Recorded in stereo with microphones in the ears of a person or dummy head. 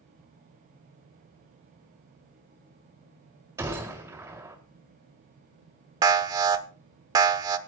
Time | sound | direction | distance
3.6 | a gunshot | 15° right (ahead or behind) | 1.9 m
6.0 | an alarm | 20° right (ahead or behind) | 0.9 m